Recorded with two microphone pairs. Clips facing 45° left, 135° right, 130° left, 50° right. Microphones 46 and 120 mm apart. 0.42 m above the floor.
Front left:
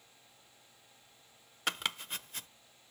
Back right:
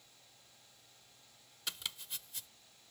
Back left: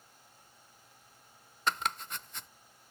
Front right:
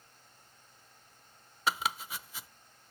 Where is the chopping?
35° left.